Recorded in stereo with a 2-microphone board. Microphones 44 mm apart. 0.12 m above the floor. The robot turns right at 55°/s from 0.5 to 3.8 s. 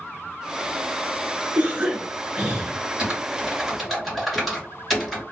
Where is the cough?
85° right, 1.3 m; by 2.7 s 20° right, 1.3 m.